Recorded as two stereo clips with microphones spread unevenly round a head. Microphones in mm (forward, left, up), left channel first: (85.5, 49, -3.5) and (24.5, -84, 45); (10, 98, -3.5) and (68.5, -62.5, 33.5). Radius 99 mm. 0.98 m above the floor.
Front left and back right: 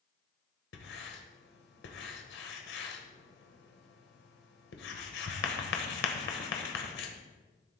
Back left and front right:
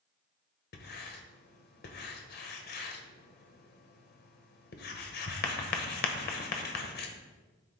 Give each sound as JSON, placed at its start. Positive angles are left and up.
{"t": 0.7, "sound": "writing", "azimuth_deg": 80, "distance_m": 1.3}